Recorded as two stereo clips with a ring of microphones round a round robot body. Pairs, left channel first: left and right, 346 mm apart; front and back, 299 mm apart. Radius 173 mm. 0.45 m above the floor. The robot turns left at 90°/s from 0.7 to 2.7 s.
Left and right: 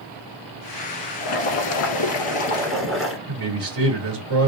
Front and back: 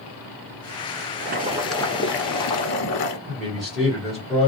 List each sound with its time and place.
1.2 s boiling: 135° left, 1.0 m; by 3.2 s straight ahead, 1.0 m
3.3 s a man speaking: 90° right, 1.7 m